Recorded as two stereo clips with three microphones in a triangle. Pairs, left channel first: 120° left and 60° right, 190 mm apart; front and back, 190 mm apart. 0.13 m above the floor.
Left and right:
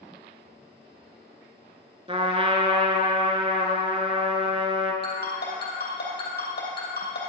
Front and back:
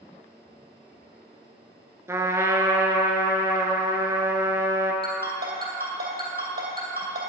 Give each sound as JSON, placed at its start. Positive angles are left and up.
{"t": 2.1, "sound": "a trumpet", "azimuth_deg": -110, "distance_m": 0.7}
{"t": 5.0, "sound": "a ringtone", "azimuth_deg": 150, "distance_m": 2.5}